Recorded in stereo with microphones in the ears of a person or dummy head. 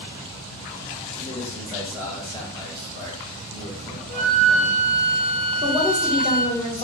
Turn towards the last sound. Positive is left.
turn(degrees=20)  # may be behind; listen again after turning